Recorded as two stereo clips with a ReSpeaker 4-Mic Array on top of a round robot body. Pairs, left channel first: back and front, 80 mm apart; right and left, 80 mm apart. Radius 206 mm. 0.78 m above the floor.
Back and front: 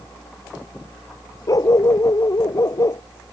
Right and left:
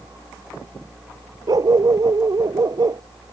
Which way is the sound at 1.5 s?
135° left.